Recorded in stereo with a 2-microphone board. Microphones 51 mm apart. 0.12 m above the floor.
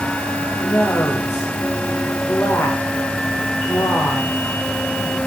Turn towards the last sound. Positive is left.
turn(degrees=50)  # may be behind; listen again after turning